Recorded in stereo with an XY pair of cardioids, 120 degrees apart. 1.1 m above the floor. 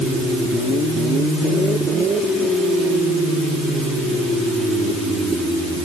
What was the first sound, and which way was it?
Only background noise.